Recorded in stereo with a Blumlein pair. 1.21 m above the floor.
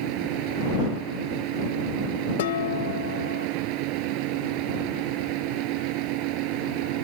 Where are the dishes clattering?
60° left.